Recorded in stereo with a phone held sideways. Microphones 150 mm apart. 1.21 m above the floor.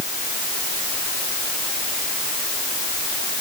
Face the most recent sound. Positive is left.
No sound to turn to.